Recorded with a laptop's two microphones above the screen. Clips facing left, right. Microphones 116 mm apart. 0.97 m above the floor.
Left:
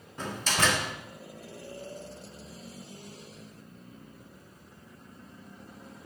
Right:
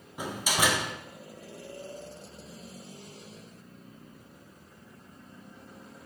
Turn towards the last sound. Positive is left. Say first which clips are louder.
# even
turn(degrees=-10)  # may be behind; listen again after turning